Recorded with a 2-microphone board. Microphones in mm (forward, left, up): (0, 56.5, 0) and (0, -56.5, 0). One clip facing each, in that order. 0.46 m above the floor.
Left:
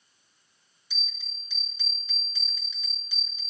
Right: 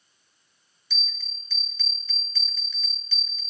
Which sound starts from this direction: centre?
A bell, at 0.9 s.